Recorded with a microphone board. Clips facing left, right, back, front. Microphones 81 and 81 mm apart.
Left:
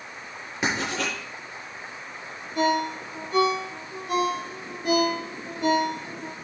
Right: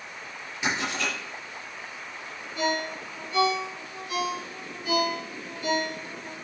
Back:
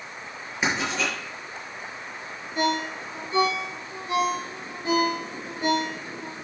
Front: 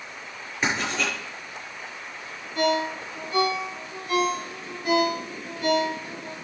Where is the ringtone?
110° left, 5 m.